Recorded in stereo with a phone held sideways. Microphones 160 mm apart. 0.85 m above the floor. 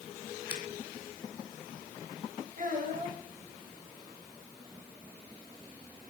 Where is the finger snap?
80° right, 1.8 m.